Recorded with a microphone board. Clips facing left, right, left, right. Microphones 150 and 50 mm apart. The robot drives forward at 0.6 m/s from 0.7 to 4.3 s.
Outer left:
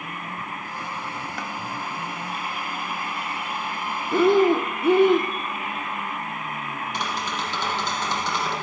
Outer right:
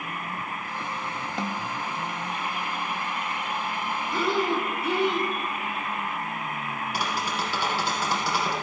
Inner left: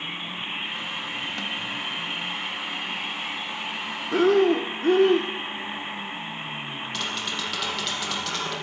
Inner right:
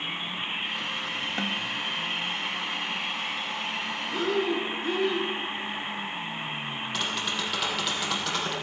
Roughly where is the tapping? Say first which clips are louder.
Even, even; centre.